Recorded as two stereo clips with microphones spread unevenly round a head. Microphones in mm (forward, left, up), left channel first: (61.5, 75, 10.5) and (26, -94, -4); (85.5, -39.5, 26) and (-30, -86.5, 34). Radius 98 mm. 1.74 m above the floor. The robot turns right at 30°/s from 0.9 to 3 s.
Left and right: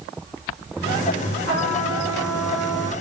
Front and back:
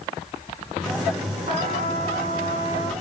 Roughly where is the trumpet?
Behind right.